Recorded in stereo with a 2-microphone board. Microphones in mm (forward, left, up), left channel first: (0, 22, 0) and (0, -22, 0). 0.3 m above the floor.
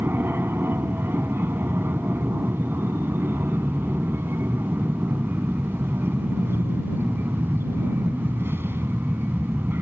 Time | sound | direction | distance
0.0 | an aircraft | 60° right (ahead or behind) | ?